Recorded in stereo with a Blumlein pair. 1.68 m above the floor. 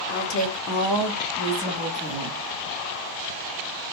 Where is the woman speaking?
50° left, 0.8 m; by 2.4 s 10° right, 1.5 m.